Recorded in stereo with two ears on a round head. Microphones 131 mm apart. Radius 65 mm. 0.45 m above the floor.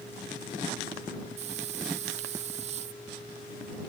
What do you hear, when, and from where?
1.4 s a hiss: 50° right (ahead or behind)